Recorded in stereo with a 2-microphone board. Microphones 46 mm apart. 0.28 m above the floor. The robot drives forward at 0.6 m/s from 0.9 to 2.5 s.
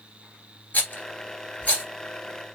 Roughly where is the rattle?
Left.